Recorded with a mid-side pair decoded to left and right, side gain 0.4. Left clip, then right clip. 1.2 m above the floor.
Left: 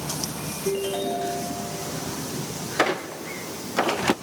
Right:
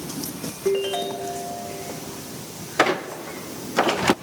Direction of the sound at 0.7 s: 45° right.